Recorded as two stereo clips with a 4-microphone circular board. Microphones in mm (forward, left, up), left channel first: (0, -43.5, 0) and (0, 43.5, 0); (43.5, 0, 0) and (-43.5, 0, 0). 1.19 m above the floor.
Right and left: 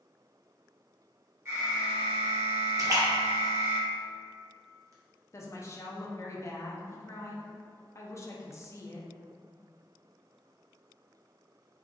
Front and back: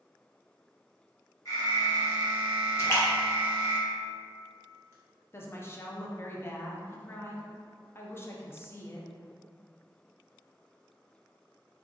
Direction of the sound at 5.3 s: 50° right.